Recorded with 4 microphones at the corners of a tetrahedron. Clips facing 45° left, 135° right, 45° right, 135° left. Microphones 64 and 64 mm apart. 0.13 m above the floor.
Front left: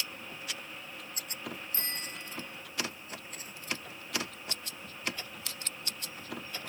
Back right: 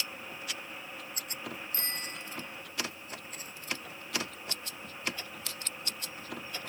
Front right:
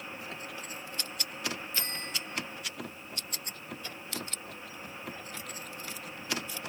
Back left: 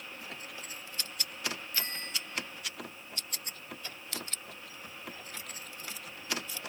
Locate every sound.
1.7 s a bicycle bell: 110° left, 6 m